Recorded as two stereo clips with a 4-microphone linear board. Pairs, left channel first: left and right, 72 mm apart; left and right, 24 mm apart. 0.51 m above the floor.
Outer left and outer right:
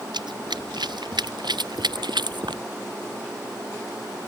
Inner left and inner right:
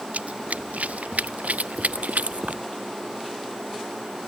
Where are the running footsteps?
80° right.